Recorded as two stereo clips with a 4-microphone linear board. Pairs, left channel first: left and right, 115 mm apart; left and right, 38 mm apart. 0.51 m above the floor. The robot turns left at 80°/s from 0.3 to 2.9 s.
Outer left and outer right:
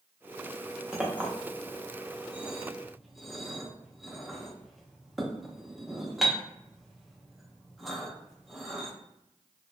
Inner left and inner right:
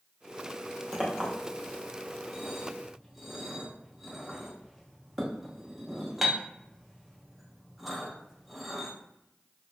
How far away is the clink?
About 0.6 m.